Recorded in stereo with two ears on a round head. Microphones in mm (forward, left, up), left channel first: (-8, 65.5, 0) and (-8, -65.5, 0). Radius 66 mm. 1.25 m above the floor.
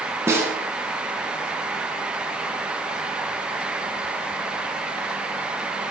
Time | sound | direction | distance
0.3 | a snare drum | 20° right (ahead or behind) | 2.5 m